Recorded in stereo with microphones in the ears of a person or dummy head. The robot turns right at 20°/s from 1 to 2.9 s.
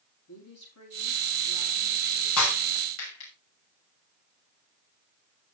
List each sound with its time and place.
0.3 s a woman speaking: 85° left, 5 m; by 2.3 s 60° left (ahead or behind), 5 m
2.4 s breaking glass: 80° left, 6 m; by 3.3 s 75° left (ahead or behind), 6 m